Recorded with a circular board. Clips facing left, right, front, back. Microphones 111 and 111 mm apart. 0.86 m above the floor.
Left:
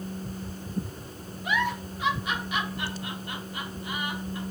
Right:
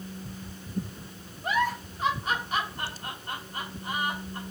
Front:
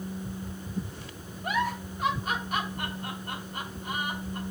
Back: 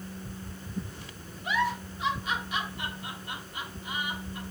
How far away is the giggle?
About 2.5 m.